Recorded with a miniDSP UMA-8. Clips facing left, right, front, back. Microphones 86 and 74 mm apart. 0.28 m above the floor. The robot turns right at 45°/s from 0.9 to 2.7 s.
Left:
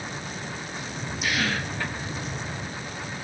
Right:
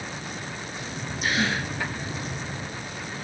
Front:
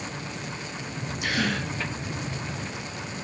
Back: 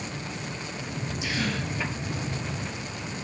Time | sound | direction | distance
1.2 | a gasp | 35° right | 2.5 m